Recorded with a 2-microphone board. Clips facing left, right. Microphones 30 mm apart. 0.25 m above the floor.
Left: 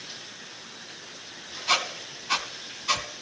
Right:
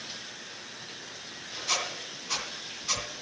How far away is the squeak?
About 1.3 m.